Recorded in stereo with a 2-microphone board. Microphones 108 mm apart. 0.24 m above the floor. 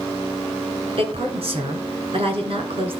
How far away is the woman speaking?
About 2.5 m.